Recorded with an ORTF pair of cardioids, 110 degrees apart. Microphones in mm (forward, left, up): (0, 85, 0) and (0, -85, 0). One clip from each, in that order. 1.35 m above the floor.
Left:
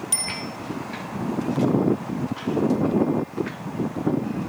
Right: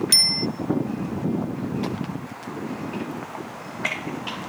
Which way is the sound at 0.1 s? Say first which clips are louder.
Right 11 dB; 55° right.